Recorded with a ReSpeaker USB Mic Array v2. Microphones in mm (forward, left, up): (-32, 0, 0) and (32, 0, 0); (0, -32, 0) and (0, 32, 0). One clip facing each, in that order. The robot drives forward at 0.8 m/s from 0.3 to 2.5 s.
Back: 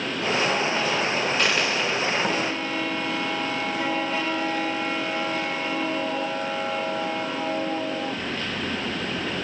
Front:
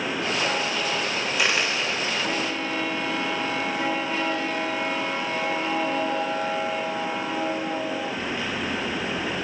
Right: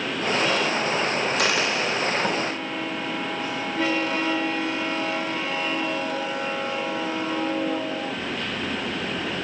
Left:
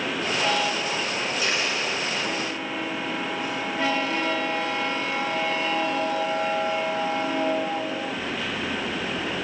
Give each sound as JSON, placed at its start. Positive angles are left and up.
{"t": 1.4, "sound": "a dropped coin", "azimuth_deg": -80, "distance_m": 6.5}